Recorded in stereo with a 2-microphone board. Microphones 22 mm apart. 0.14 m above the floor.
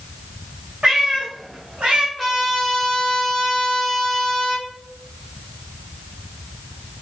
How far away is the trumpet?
About 1.4 m.